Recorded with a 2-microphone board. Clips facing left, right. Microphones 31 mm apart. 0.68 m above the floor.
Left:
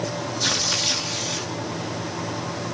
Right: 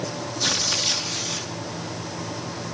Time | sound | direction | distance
0.4 | tearing paper | 5° left (ahead or behind) | 1.1 m